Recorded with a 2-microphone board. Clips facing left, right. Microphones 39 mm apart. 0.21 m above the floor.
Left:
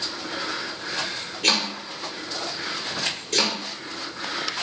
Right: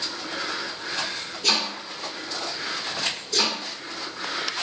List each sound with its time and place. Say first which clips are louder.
1.4 s chopping: left 2 dB; 65° left (ahead or behind), 1.2 m